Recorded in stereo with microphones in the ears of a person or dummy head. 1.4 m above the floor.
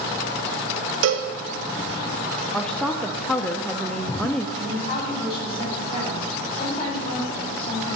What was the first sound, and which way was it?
A cowbell, 65° right (ahead or behind).